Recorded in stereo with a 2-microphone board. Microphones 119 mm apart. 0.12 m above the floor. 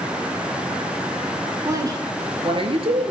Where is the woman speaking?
25° right (ahead or behind), 1.2 m; by 3.1 s 55° right (ahead or behind), 2 m.